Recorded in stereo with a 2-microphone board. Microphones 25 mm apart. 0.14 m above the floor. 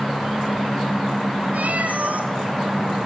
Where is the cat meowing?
70° right (ahead or behind), 2 m.